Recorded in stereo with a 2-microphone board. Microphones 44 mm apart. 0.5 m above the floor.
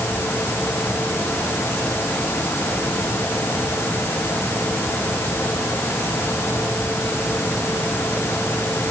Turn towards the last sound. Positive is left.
No sound to turn to.